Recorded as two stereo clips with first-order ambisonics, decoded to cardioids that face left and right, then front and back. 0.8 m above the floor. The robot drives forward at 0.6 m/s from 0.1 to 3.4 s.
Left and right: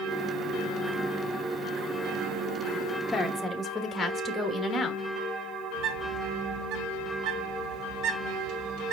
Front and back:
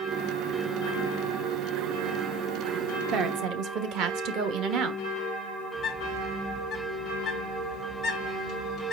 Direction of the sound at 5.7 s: 75° right.